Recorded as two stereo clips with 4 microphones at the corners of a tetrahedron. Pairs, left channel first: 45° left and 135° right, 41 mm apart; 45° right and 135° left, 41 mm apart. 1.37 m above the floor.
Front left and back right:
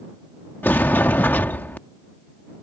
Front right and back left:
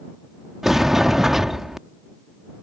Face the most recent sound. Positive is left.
turn(degrees=55)